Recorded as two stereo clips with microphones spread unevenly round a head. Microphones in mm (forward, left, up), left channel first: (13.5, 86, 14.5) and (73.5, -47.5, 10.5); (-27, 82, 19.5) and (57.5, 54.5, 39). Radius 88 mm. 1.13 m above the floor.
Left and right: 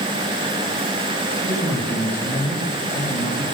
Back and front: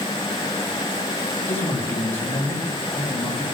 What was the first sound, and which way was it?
A man speaking, 160° right.